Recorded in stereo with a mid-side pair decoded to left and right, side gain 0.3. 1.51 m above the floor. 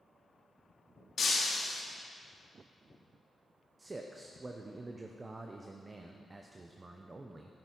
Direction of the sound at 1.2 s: 65° left.